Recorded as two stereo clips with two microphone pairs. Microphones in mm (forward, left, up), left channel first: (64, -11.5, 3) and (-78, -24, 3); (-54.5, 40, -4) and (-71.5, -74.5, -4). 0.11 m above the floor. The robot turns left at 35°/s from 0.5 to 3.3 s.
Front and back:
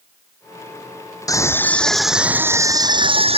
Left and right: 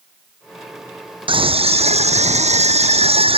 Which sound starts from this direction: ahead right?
A scream, at 1.3 s.